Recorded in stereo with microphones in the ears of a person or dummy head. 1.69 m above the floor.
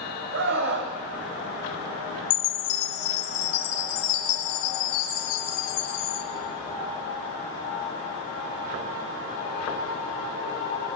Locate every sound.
0.3 s a scream: 60° right (ahead or behind), 1.7 m
2.3 s a chime: 80° left, 0.6 m